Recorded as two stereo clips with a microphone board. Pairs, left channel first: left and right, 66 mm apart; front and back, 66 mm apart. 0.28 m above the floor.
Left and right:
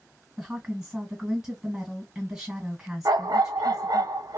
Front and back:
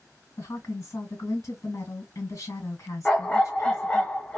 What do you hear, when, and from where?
0.4 s a woman speaking: 10° right, 1.9 m
3.0 s a dog barking: 80° right, 0.7 m